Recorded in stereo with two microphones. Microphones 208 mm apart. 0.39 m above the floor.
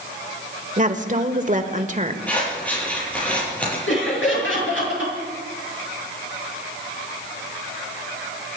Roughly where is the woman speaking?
Right.